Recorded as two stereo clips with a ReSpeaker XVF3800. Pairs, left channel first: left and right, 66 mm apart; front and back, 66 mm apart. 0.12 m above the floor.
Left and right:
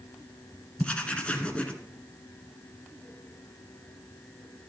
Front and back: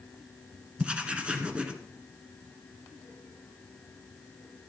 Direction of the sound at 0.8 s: 135° left.